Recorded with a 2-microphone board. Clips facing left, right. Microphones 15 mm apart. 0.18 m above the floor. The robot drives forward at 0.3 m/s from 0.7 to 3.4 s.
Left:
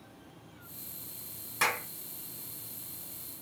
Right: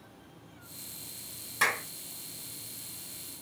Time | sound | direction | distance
1.6 | a clap | centre (ahead or behind) | 1.5 m